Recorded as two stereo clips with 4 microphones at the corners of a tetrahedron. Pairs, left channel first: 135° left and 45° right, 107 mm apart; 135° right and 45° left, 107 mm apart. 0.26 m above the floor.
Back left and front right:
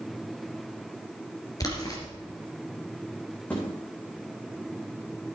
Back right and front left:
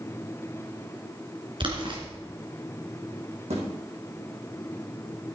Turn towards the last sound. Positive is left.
turn(degrees=60)